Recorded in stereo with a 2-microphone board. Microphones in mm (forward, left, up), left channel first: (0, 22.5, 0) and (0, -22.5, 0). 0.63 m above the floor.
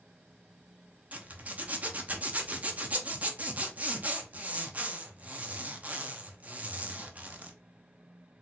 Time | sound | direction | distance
1.1 | a zipper | 30° right (ahead or behind) | 0.6 m